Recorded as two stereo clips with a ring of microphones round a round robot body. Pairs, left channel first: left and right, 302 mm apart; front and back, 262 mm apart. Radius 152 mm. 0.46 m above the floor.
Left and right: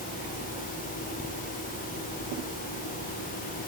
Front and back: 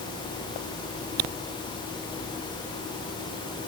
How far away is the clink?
I don't hear a clink.